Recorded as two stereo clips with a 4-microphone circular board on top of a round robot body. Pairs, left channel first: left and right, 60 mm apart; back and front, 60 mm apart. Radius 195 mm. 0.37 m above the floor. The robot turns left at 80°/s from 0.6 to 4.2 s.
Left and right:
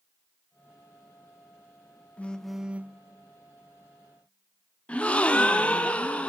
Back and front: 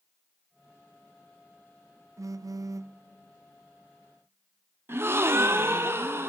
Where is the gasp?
30° left, 1.6 m.